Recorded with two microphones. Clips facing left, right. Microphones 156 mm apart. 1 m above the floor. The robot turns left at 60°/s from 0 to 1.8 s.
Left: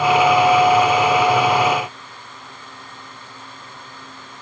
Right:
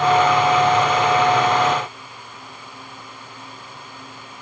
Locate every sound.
Only background noise.